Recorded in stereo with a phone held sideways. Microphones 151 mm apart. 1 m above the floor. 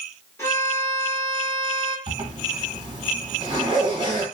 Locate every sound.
0.4 s a violin: 20° left (ahead or behind), 1.1 m
2.1 s a zipper: 30° right (ahead or behind), 1.5 m